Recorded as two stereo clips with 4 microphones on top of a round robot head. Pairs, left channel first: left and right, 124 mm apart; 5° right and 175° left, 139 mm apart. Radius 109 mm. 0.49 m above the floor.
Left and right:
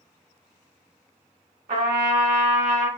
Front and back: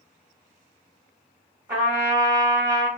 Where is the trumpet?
105° right, 1.6 m.